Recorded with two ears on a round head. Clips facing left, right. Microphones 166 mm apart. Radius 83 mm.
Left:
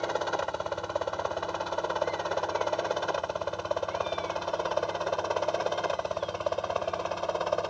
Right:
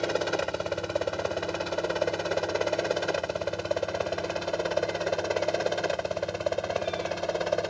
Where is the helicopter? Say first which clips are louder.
Right 3 dB; 25° right (ahead or behind); by 7.7 s 20° right (ahead or behind).